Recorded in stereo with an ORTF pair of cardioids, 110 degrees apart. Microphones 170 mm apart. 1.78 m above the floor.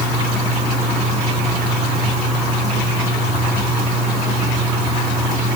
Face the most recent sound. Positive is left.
No sound to turn to.